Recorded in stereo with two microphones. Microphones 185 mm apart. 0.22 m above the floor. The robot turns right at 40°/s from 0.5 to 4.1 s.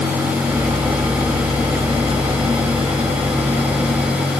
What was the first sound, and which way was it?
Only background noise.